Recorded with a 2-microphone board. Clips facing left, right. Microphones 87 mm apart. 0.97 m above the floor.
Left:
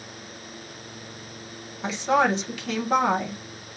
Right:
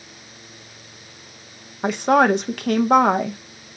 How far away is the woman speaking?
About 0.6 m.